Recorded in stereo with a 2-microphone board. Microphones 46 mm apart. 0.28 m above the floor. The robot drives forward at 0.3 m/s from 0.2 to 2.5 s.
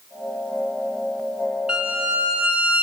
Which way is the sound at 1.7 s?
20° right (ahead or behind).